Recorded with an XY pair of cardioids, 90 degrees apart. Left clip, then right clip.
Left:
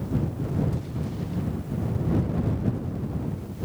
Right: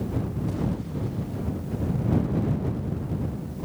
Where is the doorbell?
I don't hear a doorbell.